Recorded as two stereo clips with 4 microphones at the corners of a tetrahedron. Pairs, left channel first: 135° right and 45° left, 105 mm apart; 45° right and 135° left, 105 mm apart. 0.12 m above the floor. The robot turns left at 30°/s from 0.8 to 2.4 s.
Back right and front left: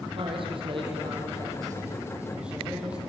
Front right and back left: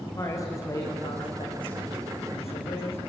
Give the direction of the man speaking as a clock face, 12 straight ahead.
12 o'clock.